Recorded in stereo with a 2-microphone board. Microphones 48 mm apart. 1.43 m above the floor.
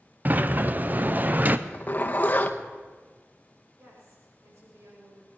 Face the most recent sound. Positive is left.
turn(degrees=-60)  # may be behind; listen again after turning